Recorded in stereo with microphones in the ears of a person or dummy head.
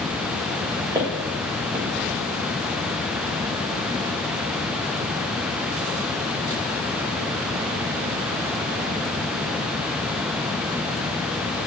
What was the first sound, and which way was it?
Footsteps, 20° right (ahead or behind).